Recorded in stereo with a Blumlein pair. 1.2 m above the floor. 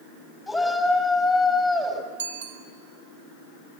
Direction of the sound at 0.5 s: Straight ahead.